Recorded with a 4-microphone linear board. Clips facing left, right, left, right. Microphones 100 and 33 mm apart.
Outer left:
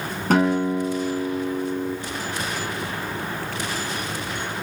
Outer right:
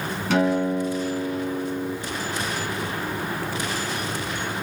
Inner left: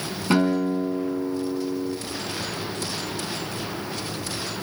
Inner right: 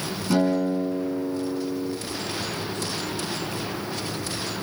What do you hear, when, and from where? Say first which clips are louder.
0.3 s a guitar: outer left 2 dB, inner left 1 dB; 45° left (ahead or behind), 2.5 m